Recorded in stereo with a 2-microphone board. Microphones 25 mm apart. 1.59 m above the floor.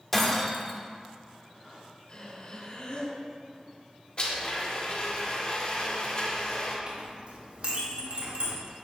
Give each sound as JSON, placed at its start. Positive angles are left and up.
{"t": 0.1, "sound": "breaking glass", "side_deg": 5, "distance_m": 1.5}
{"t": 2.1, "sound": "breathing", "side_deg": 40, "distance_m": 3.0}
{"t": 4.2, "sound": "a blender", "side_deg": 40, "distance_m": 2.0}
{"t": 6.9, "sound": "a clink", "side_deg": -45, "distance_m": 2.0}